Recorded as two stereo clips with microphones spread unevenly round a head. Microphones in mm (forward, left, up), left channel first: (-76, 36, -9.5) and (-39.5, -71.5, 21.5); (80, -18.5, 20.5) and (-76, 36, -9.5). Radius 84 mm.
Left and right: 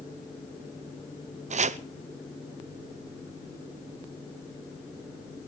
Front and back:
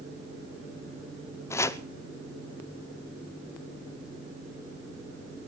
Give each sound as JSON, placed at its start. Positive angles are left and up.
{"t": 1.5, "sound": "chopping", "azimuth_deg": -95, "distance_m": 0.7}